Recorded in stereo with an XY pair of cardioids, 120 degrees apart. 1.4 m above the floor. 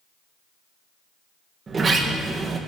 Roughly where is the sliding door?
Ahead right.